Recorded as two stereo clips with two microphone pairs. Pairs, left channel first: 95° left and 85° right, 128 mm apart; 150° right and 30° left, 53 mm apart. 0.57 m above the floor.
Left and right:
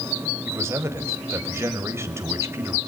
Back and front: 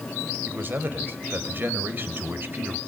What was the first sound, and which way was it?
A man speaking, 15° right.